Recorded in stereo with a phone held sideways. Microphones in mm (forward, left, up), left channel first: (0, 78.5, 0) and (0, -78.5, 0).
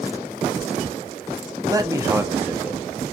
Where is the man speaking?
25° right (ahead or behind), 1.8 m; by 2.8 s 5° right (ahead or behind), 1.5 m.